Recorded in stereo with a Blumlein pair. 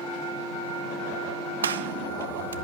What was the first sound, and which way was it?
A gunshot, 70° right.